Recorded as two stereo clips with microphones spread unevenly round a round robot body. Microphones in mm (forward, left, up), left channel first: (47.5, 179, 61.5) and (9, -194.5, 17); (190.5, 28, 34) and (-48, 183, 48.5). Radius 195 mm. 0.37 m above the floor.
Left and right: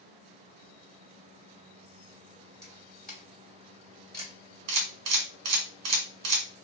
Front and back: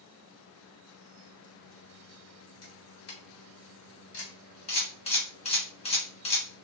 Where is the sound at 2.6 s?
5° right, 2 m.